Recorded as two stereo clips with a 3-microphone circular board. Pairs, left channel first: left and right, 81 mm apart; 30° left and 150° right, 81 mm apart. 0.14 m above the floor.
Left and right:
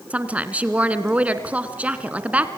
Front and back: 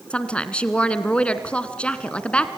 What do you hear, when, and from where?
0.1 s a woman speaking: 35° right, 1.5 m